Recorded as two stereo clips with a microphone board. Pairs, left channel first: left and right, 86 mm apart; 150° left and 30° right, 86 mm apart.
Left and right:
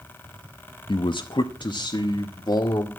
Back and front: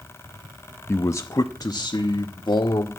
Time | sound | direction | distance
0.9 | a man speaking | 90° left | 0.7 m